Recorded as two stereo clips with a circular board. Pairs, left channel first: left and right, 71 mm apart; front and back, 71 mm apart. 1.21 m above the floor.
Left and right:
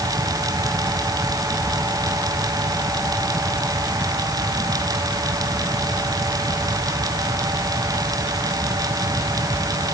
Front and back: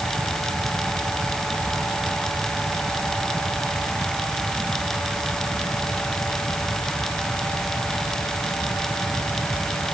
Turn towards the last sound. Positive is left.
No sound to turn to.